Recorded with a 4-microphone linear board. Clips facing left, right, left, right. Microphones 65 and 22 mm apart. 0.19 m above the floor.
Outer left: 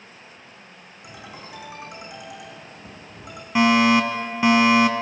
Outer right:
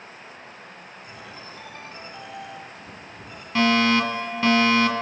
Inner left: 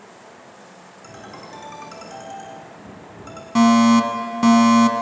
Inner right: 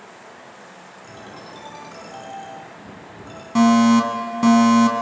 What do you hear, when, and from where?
1.0 s a ringtone: 70° left (ahead or behind), 7.5 m
3.5 s a fire alarm: 15° left (ahead or behind), 2.5 m